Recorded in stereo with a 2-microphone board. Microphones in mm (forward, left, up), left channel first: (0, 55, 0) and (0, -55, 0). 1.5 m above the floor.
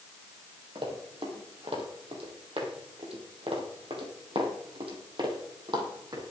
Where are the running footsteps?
60° right (ahead or behind), 3.5 m; by 6.2 s 45° right (ahead or behind), 4 m.